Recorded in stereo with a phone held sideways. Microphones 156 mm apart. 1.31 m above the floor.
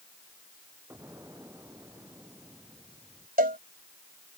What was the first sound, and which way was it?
An explosion, 15° right (ahead or behind).